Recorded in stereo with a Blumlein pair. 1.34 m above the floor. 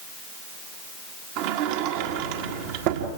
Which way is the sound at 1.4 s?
45° right.